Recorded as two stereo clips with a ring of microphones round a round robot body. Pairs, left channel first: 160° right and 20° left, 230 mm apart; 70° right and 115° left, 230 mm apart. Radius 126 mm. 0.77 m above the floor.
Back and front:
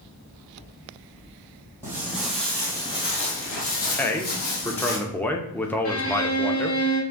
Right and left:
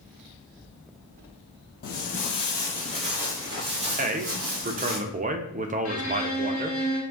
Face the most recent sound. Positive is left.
turn(degrees=-125)